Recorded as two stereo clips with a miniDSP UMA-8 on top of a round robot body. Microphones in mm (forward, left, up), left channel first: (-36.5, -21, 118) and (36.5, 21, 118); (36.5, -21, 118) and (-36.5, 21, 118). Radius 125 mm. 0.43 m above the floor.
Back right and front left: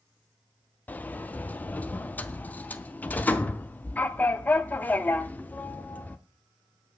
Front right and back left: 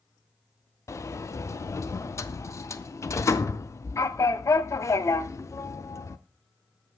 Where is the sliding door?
80° right, 0.5 m.